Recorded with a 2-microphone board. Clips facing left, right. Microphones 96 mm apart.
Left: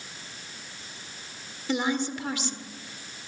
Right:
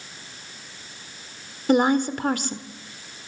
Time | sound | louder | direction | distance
1.7 | a woman speaking | right 8 dB | 50° right (ahead or behind) | 1.6 m